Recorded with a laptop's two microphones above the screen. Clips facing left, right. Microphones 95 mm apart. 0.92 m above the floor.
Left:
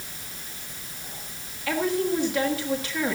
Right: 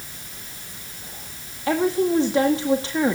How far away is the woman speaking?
About 1.5 m.